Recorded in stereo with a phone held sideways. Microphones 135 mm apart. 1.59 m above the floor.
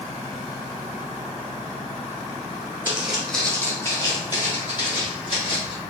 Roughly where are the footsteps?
Centre.